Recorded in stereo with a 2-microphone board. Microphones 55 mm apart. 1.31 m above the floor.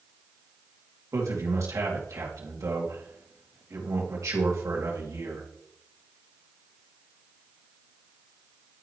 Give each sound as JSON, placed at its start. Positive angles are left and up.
{"t": 1.1, "sound": "a man speaking", "side_deg": -75, "distance_m": 2.5}